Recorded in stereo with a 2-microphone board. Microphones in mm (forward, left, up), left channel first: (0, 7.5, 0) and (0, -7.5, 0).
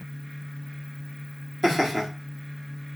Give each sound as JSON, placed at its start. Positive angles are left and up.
{"t": 1.6, "sound": "laughter", "side_deg": -5, "distance_m": 2.5}